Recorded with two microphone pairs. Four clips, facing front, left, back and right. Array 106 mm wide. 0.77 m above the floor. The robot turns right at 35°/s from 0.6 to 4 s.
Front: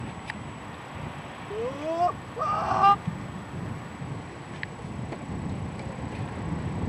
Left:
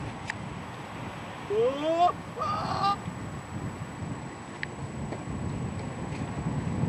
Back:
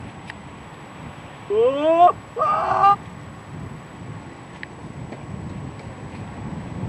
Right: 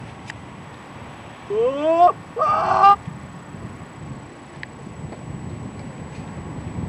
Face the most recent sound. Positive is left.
turn(degrees=25)